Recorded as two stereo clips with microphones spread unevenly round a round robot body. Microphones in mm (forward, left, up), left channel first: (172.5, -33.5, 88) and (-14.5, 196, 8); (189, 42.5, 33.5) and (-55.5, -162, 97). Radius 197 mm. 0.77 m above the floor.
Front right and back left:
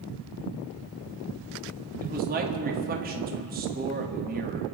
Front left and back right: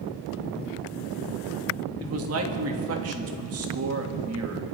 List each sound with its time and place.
2.0 s a man speaking: 170° left, 1.7 m